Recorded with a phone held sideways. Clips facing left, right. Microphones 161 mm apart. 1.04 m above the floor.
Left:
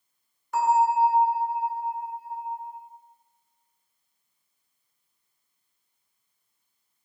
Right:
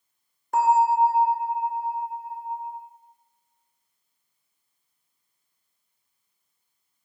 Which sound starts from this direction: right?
A bell, at 0.5 s.